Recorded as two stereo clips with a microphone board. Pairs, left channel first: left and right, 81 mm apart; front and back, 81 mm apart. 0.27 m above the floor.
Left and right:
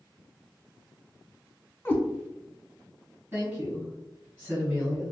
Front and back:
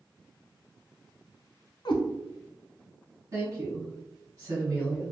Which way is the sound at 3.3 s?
155° right.